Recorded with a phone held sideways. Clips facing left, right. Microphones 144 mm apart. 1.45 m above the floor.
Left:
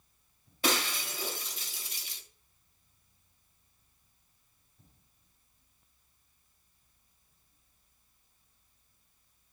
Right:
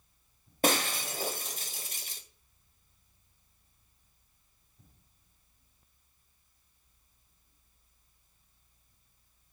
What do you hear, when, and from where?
0.6 s breaking glass: 45° right (ahead or behind), 1.8 m